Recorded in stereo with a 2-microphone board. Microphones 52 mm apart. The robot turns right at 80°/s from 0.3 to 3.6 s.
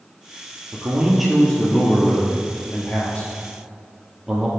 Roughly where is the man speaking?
Ahead right.